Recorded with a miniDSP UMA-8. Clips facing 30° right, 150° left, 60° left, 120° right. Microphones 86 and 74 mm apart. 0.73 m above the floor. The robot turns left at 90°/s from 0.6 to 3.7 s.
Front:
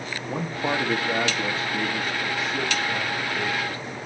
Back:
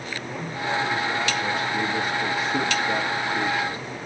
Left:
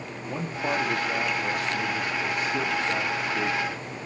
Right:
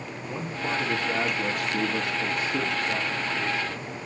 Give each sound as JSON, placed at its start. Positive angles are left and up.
{"t": 0.3, "sound": "a man speaking", "azimuth_deg": 0, "distance_m": 1.2}